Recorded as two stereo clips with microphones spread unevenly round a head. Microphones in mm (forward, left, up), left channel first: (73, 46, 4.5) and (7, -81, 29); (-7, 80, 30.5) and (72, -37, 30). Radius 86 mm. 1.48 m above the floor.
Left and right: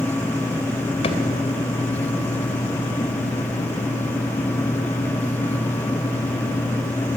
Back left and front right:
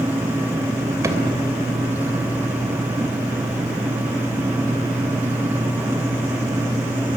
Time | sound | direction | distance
1.0 | a drawer | 10° left | 2.5 m